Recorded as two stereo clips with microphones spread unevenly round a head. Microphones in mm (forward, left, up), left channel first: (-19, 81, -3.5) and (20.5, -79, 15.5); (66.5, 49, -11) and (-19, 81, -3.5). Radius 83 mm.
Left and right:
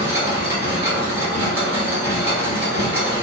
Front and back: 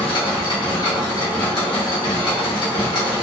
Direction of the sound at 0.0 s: 10° right.